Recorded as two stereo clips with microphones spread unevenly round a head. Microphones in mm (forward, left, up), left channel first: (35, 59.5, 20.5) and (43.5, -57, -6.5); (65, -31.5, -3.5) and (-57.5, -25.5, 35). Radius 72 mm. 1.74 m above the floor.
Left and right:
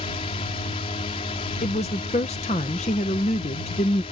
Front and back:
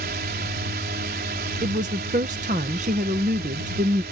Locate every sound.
0.0 s a drone: 150° left
1.6 s a woman speaking: 140° left